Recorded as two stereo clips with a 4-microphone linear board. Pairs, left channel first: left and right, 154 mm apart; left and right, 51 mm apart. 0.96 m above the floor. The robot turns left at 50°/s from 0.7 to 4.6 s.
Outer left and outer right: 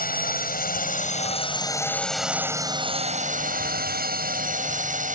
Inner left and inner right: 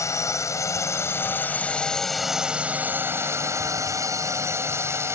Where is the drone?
75° left; by 5.2 s 120° right.